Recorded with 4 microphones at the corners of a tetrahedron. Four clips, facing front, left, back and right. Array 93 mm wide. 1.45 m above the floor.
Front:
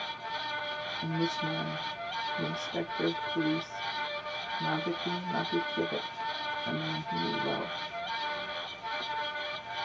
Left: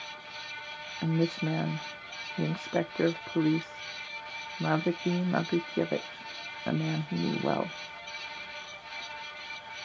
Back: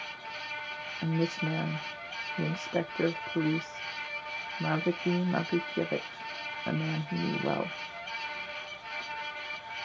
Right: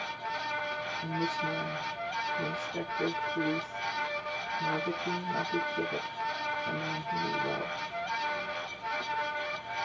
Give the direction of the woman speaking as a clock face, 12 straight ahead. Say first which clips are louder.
Left 5 dB, back 2 dB; 8 o'clock.